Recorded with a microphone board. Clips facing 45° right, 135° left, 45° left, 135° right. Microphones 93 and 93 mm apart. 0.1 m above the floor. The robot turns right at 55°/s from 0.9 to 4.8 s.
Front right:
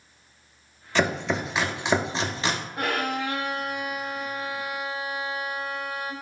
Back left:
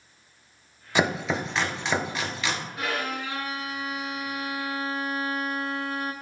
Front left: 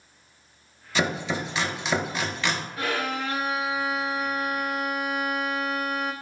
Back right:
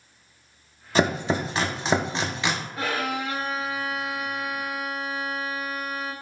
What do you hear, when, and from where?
0.9 s chopping: 160° right, 0.5 m; by 2.6 s 65° right, 0.5 m
2.8 s a violin: 80° right, 1.0 m; by 6.1 s 30° left, 1.0 m